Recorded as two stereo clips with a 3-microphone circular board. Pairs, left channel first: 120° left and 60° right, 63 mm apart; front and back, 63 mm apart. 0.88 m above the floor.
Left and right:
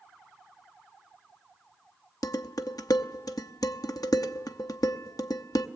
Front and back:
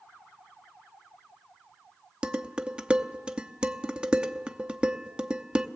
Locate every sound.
2.2 s dishes clattering: 105° left, 0.7 m